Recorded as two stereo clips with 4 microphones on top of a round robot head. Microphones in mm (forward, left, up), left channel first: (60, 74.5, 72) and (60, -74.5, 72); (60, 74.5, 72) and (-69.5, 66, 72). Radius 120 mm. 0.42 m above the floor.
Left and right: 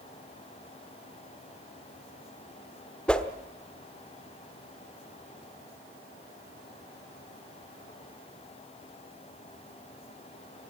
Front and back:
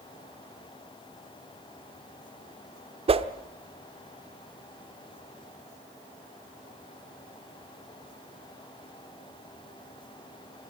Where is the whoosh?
170° left, 1.0 m.